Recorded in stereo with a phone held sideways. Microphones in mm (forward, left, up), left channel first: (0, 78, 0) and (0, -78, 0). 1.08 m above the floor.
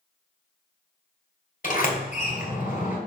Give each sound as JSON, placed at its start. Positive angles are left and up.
{"t": 1.6, "sound": "a sliding door", "side_deg": 60, "distance_m": 2.5}